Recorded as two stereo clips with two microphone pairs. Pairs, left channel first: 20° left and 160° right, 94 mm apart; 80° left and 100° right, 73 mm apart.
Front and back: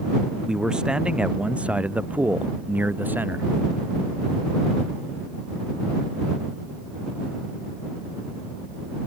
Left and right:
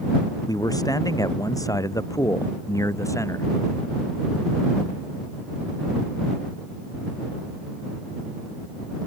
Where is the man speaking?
115° left; by 3.5 s 130° left.